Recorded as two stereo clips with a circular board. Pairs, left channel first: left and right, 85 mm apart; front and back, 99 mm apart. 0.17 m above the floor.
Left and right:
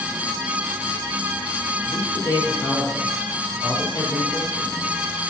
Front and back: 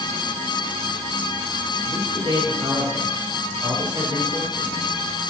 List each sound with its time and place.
1.9 s a man speaking: 140° left, 4.5 m